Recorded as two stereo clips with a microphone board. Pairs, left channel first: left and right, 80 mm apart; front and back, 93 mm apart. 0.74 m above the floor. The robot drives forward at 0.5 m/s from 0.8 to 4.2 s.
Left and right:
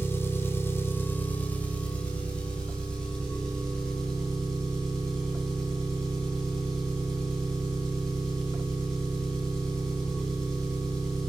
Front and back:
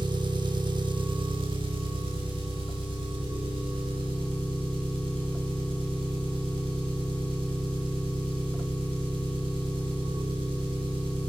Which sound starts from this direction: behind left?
An engine running, at 0.0 s.